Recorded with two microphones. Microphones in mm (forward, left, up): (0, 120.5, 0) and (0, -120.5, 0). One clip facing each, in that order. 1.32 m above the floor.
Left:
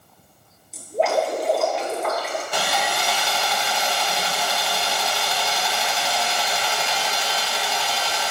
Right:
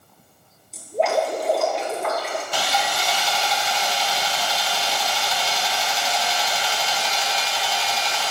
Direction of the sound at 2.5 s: 60° left (ahead or behind).